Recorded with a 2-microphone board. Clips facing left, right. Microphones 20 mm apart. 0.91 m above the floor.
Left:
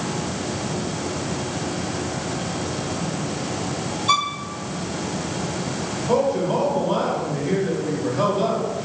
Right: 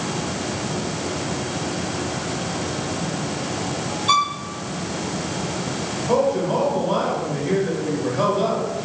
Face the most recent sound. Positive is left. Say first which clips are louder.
# right 1 dB
turn(degrees=0)  # may be behind; listen again after turning